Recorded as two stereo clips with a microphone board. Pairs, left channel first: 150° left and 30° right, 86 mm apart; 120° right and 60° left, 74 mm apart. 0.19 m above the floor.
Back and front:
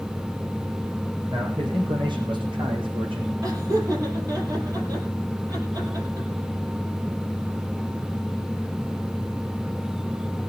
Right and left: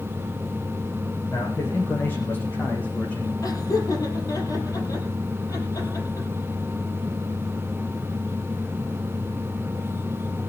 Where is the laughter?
80° right, 7 m.